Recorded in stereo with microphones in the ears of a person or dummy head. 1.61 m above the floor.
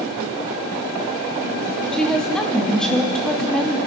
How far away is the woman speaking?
About 2.5 m.